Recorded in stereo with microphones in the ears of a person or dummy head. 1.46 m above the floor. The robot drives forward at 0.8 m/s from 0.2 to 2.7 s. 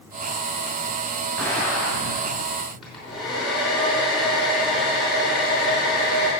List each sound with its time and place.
1.4 s an explosion: centre (ahead or behind), 6 m
2.8 s a hair dryer: centre (ahead or behind), 4.5 m